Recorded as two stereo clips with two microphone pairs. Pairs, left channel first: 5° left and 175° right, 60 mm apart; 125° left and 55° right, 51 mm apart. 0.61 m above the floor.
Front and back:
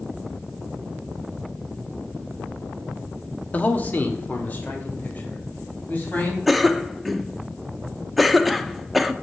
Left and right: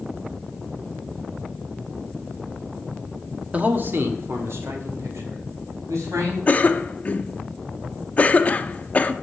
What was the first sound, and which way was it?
A man speaking, 30° right.